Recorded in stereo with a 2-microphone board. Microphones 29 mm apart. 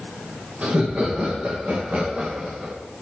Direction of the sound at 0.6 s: 80° right.